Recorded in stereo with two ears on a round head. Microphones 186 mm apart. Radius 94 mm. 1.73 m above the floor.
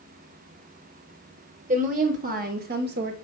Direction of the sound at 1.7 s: 40° right (ahead or behind).